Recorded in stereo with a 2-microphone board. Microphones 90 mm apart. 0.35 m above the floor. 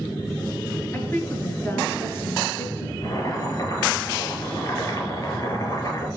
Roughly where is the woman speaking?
Left.